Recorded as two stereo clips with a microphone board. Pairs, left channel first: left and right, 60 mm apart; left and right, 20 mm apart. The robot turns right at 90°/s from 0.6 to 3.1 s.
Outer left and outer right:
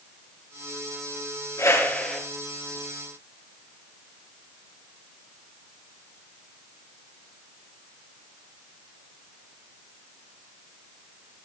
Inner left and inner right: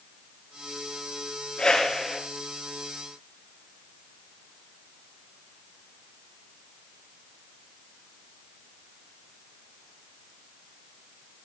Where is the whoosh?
115° left, 5 m; by 2.2 s 175° left, 5 m.